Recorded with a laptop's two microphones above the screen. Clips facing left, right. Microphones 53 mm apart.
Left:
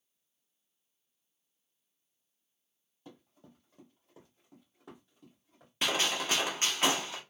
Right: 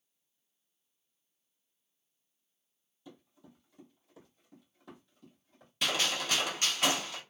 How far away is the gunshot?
About 0.9 m.